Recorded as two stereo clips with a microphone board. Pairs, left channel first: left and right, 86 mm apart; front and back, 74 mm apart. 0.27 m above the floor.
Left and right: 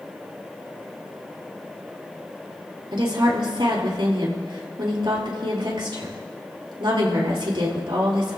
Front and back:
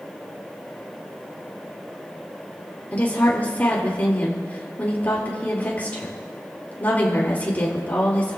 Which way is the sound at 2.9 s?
70° right.